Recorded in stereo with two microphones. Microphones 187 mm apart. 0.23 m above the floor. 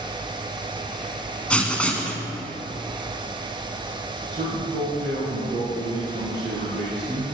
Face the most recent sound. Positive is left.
turn(degrees=-55)  # may be behind; listen again after turning